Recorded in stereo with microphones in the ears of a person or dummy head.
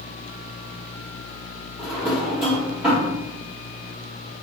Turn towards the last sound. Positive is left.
turn(degrees=0)  # may be behind; listen again after turning